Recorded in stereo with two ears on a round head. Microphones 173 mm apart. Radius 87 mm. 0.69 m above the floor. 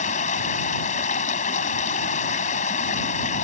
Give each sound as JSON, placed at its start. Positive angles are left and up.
{"t": 0.0, "sound": "running water", "side_deg": 45}